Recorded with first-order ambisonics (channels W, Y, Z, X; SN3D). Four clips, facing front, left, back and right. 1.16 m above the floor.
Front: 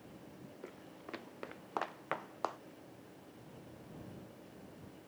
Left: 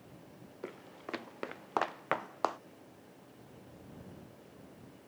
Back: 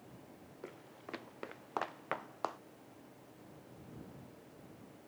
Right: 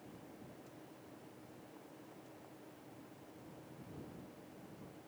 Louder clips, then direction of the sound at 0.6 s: Left 10 dB, back 2 dB; 95° left.